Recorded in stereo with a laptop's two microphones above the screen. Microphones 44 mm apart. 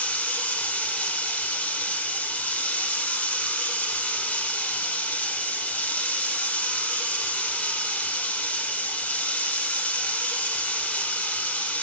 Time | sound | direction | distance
0.0 | running water | 35° left (ahead or behind) | 0.8 m